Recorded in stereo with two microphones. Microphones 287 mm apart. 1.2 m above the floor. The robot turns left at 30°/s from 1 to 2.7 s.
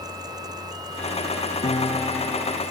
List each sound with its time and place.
1.6 s a piano: 25° left (ahead or behind), 1.2 m; by 2.6 s 5° right (ahead or behind), 1.2 m